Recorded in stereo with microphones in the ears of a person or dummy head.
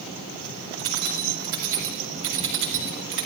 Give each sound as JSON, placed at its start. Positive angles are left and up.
{"t": 0.8, "sound": "keys jangling", "side_deg": -70, "distance_m": 7.5}